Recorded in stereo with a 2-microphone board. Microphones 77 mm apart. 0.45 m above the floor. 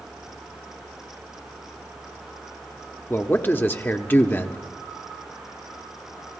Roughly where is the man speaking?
Left.